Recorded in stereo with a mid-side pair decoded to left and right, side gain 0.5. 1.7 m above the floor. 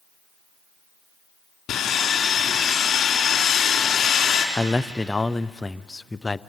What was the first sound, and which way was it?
Sawing, 55° left.